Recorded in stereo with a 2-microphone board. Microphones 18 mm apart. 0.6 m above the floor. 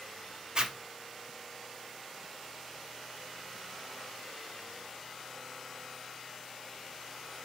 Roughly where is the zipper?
Right.